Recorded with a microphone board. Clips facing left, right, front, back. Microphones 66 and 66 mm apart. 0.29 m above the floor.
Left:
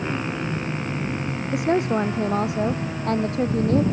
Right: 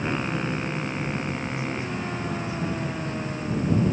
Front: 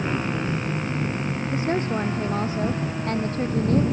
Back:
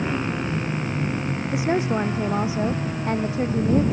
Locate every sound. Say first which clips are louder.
1.5 s a woman speaking: left 9 dB, back 3 dB; 100° left